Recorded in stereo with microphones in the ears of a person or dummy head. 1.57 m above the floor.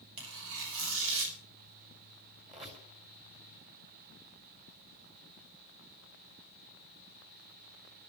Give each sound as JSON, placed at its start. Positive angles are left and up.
{"t": 0.2, "sound": "tearing paper", "side_deg": -70, "distance_m": 4.5}
{"t": 2.5, "sound": "a squeak", "side_deg": -35, "distance_m": 3.5}